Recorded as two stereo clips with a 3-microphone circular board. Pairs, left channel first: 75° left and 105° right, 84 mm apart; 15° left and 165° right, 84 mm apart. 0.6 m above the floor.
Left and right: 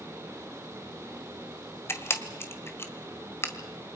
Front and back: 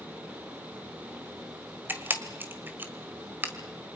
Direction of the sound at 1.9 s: 130° left.